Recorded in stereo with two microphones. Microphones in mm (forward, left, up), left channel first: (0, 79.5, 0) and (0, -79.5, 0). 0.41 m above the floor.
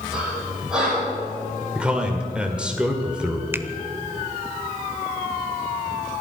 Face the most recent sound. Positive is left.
turn(degrees=-15)  # may be behind; listen again after turning